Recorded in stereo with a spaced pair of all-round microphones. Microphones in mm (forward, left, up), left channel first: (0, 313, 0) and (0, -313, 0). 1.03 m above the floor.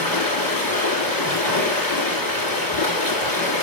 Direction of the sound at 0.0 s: 35° left (ahead or behind).